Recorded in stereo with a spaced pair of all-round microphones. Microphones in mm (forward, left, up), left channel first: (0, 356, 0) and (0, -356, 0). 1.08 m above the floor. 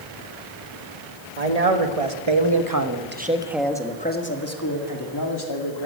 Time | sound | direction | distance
1.4 | a man speaking | 60° right (ahead or behind) | 1.7 m